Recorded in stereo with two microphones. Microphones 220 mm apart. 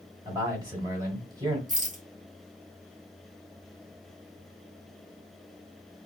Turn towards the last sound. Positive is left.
turn(degrees=-35)  # may be behind; listen again after turning